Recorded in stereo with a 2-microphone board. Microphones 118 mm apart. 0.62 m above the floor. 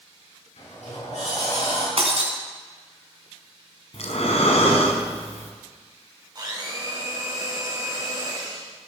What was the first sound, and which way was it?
A sliding door, 75° left (ahead or behind).